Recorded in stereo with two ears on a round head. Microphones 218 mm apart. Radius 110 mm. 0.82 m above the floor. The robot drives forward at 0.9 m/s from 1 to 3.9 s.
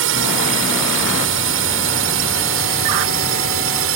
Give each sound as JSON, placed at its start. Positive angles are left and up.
{"t": 0.0, "sound": "a drone", "side_deg": -55}